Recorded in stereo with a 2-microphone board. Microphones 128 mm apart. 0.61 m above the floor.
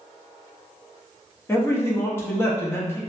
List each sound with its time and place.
1.5 s a man speaking: 20° left (ahead or behind), 0.5 m